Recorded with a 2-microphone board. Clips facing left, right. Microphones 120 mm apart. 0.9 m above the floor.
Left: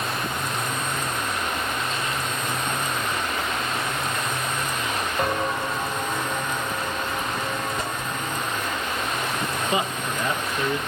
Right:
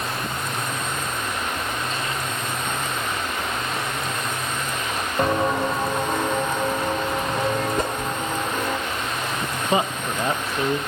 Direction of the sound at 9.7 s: 30° right (ahead or behind).